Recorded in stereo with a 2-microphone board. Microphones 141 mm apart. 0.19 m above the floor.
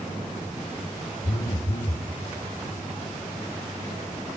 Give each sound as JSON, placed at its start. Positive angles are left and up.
{"t": 1.2, "sound": "a phone buzzing", "side_deg": 80, "distance_m": 1.5}